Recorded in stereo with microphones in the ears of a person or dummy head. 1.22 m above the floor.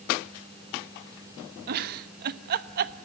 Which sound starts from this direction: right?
A giggle, at 1.7 s.